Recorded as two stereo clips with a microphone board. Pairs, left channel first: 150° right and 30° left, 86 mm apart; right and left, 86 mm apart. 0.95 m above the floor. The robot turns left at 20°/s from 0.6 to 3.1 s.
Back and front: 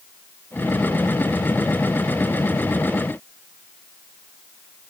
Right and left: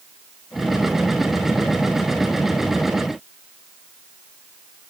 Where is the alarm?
No alarm in this recording.